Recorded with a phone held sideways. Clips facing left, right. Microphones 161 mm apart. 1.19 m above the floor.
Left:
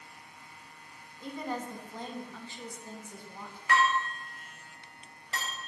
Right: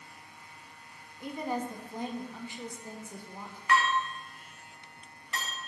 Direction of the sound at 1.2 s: 15° right (ahead or behind).